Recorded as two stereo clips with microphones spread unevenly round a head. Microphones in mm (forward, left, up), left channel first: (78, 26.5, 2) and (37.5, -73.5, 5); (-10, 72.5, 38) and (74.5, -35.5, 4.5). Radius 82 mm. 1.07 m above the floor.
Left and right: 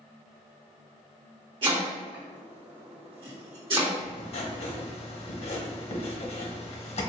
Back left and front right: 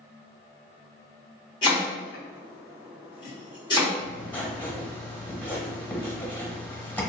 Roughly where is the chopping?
Behind.